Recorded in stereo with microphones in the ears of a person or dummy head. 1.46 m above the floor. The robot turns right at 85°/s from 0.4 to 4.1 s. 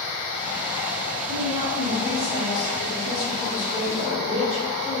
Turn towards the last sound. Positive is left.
turn(degrees=135)